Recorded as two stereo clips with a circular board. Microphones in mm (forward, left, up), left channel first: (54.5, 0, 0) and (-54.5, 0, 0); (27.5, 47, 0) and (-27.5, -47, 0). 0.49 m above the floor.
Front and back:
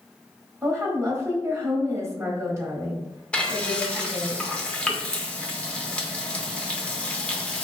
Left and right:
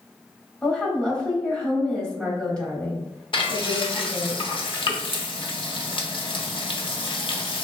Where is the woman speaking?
135° left, 1.1 m.